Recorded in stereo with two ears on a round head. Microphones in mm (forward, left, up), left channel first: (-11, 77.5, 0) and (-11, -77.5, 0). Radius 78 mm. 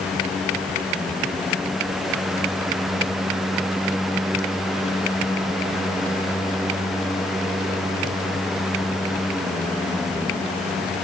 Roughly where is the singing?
No singing in this recording.